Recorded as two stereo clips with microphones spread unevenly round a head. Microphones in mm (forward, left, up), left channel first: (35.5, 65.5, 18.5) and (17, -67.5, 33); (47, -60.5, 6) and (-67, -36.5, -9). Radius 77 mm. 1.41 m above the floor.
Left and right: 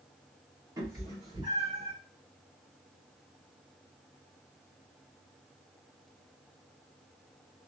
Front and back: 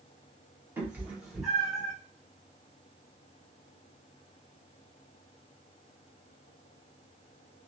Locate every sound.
0.8 s a cat meowing: 125° right, 1.0 m; by 1.9 s 75° right, 1.2 m